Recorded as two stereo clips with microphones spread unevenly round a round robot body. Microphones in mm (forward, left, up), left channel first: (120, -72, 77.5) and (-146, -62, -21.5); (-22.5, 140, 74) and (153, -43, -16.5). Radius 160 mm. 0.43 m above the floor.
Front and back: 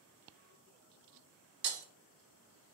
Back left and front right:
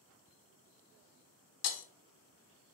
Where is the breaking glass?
145° left, 0.5 m.